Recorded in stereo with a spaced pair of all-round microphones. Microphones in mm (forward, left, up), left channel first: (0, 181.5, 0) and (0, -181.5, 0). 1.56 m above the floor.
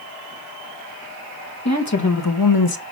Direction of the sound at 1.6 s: 45° left (ahead or behind).